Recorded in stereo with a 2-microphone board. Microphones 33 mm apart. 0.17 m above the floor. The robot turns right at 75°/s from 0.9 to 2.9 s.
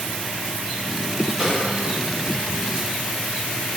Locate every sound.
1.4 s a snare drum: 5° right (ahead or behind), 1.7 m; by 1.6 s centre (ahead or behind), 1.7 m